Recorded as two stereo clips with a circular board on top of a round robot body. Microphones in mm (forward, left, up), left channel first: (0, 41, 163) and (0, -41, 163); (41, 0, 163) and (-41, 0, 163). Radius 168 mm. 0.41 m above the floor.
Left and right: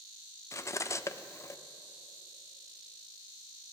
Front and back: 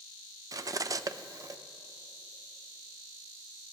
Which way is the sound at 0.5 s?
140° left.